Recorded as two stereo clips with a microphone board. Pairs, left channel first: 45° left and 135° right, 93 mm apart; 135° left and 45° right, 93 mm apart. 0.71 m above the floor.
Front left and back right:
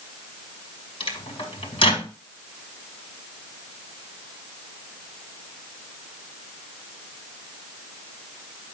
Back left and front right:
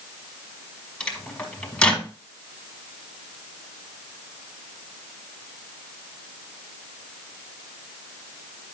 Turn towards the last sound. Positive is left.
turn(degrees=55)